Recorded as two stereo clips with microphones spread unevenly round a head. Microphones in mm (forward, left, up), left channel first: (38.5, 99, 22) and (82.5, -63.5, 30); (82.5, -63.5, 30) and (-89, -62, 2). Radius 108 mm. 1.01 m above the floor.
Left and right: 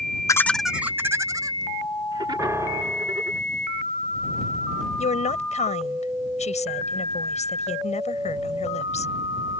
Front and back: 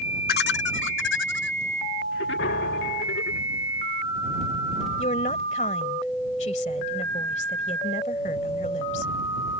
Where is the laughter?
40° left; by 3.4 s 15° right.